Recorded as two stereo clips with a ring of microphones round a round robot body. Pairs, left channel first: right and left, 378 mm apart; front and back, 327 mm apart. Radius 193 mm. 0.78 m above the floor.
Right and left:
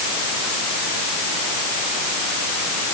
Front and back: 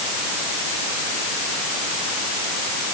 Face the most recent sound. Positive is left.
No sound to turn to.